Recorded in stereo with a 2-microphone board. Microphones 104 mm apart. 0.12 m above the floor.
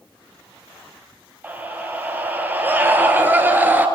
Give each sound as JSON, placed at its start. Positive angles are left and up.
{"t": 1.4, "sound": "a scream", "side_deg": -20, "distance_m": 4.0}